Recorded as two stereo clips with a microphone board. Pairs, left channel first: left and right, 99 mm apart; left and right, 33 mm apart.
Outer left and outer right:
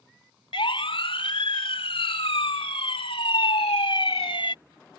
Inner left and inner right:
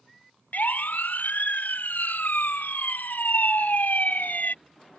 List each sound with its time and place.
0.5 s a siren: 70° left (ahead or behind)